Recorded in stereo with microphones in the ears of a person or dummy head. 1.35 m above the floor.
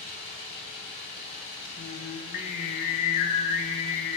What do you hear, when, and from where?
0.0 s running water: 60° left (ahead or behind), 2.5 m
1.8 s singing: 55° left (ahead or behind), 0.6 m